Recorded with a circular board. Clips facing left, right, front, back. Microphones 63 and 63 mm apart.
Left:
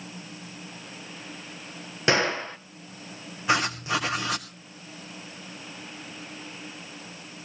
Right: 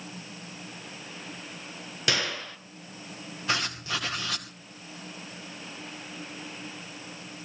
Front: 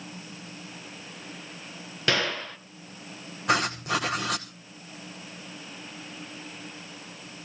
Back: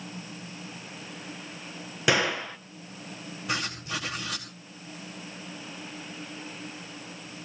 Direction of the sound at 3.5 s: 20° left.